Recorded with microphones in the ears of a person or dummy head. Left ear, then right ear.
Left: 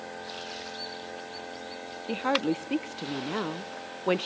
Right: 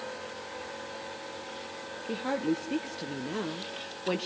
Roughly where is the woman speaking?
Left.